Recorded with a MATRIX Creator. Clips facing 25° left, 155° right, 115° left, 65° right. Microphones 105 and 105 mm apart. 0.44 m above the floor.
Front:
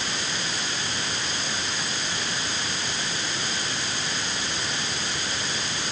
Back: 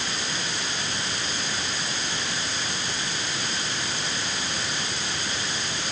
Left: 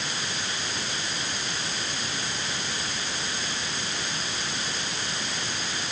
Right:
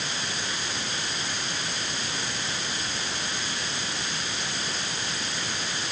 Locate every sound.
Only background noise.